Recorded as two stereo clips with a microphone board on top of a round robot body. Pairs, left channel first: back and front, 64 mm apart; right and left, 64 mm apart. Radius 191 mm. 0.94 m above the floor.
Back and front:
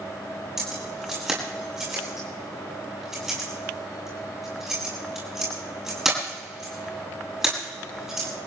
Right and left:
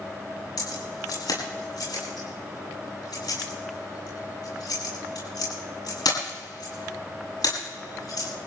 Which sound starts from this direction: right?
Keys jangling, at 0.6 s.